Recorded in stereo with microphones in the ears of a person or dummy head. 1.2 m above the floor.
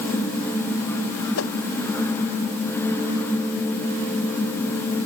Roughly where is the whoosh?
Left.